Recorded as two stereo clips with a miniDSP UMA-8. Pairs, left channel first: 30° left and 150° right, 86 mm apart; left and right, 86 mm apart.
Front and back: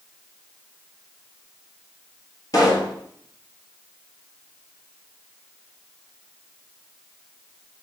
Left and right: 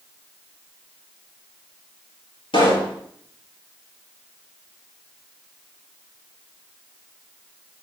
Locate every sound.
2.5 s a pop: 75° left, 6.5 m